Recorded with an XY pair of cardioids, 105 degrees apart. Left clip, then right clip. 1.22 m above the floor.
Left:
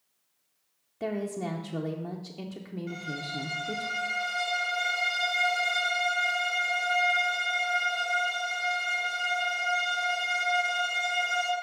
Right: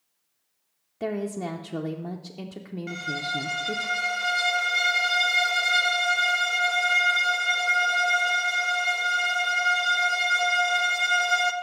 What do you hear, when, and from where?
1.0 s a woman speaking: 20° right, 0.5 m
2.9 s a violin: 65° right, 0.9 m